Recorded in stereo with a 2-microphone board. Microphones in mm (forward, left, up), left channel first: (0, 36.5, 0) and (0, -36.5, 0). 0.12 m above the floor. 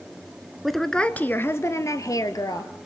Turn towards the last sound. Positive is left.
turn(degrees=60)  # may be behind; listen again after turning